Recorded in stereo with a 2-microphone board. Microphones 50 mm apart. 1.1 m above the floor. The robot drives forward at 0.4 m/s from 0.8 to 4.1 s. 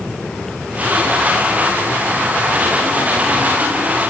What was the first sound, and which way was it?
Only background noise.